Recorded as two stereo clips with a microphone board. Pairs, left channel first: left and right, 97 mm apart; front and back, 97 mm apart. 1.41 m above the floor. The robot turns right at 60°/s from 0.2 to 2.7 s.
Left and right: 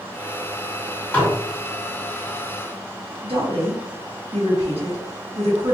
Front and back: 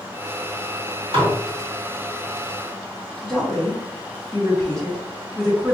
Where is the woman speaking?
90° right, 1.5 m.